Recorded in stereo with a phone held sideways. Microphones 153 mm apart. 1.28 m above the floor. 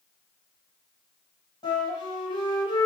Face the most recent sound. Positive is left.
turn(degrees=25)  # may be behind; listen again after turning